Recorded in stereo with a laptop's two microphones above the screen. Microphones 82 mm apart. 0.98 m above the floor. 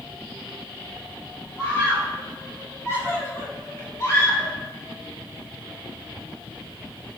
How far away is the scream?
About 5.5 m.